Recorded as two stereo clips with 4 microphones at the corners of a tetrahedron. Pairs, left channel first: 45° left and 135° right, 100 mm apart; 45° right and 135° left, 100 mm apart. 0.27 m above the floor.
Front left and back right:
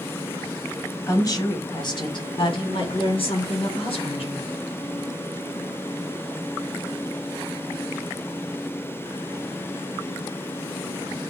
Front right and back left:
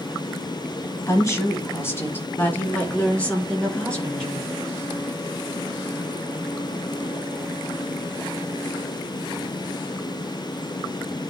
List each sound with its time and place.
1.1 s a woman speaking: straight ahead, 1.9 m; by 4.5 s 35° left, 4 m